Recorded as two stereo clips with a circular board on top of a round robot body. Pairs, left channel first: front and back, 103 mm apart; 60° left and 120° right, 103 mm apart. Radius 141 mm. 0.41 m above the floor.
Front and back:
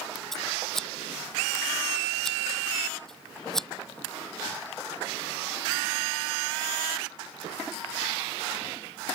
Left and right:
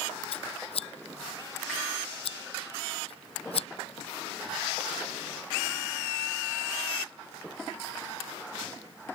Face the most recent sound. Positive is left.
turn(degrees=85)